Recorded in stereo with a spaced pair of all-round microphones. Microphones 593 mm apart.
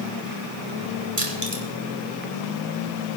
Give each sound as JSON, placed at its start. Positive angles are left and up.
{"t": 1.2, "sound": "crushing", "side_deg": -65, "distance_m": 3.0}